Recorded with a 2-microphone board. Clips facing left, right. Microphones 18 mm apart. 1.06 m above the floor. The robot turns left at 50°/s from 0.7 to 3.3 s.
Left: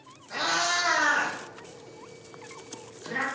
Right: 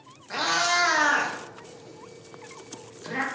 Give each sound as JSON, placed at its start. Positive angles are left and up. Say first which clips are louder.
{"t": 0.3, "sound": "a cat meowing", "louder": "right 2 dB", "side_deg": -45, "distance_m": 0.6}